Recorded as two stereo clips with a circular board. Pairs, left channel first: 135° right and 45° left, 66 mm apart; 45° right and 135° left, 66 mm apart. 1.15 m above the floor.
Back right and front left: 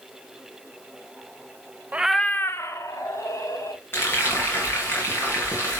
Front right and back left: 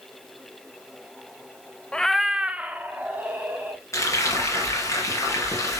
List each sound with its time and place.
1.9 s a cat meowing: 10° left, 0.6 m; by 3.8 s 165° right, 2.5 m
3.9 s frying: 85° right, 4 m